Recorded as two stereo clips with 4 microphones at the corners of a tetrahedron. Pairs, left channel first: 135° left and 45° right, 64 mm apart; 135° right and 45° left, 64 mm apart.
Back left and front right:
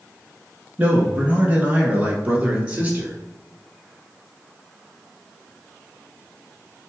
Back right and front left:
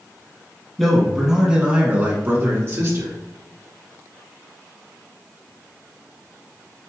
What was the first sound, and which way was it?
A man speaking, 60° right.